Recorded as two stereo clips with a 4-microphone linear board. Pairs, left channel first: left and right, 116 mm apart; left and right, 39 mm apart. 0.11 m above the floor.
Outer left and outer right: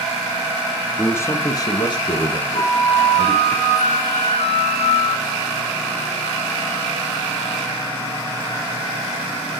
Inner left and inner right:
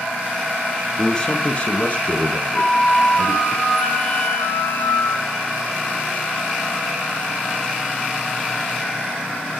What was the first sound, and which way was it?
A man speaking, 15° left (ahead or behind).